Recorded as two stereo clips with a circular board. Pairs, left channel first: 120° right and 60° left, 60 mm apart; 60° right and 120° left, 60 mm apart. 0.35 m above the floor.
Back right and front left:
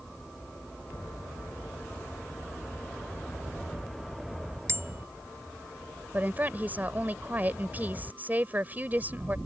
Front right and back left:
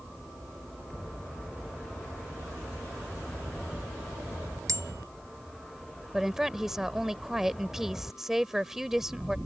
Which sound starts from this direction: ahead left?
A woman speaking, at 6.1 s.